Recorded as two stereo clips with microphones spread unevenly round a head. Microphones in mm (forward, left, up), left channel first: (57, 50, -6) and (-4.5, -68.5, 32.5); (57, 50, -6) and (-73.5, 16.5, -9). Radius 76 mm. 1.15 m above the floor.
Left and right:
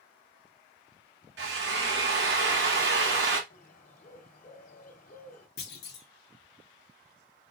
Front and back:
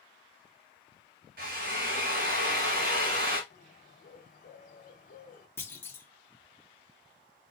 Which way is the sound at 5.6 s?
90° left.